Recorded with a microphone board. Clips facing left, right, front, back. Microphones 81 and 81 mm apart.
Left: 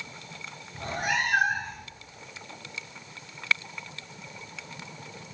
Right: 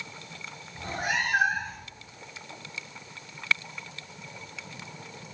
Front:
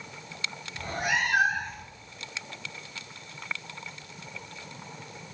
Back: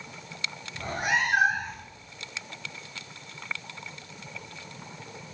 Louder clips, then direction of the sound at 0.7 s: Left 1 dB, back 2 dB; 125° left.